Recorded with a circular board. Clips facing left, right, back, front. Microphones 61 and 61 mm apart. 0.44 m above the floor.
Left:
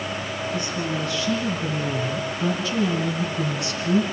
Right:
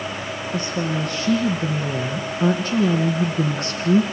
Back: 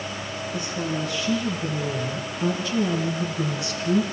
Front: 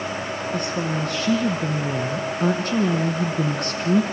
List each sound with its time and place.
0.5 s a woman speaking: 40° right, 6 m; by 4.0 s 45° right, 4 m